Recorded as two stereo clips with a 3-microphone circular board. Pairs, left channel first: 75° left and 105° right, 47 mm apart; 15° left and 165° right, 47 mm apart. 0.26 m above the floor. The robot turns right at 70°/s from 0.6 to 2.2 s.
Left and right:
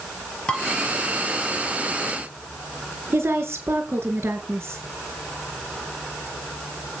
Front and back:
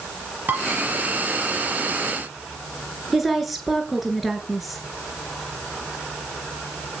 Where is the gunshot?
No gunshot in this recording.